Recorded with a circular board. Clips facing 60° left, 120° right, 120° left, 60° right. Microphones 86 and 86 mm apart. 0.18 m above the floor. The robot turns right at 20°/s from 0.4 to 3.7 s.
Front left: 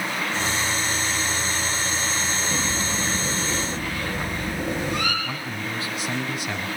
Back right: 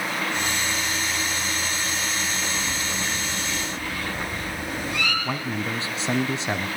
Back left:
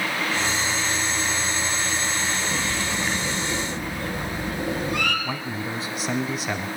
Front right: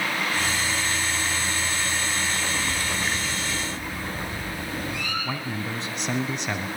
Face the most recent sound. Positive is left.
turn(degrees=-155)